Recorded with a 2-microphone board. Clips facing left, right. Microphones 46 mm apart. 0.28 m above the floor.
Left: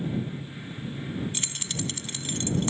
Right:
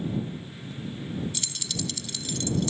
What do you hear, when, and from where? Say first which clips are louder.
1.3 s keys jangling: left 1 dB; 40° left (ahead or behind)